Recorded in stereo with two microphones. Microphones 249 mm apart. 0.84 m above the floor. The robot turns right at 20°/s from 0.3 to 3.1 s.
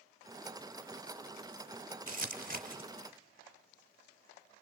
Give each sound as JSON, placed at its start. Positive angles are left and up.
{"t": 2.1, "sound": "crumpling", "side_deg": -35, "distance_m": 0.7}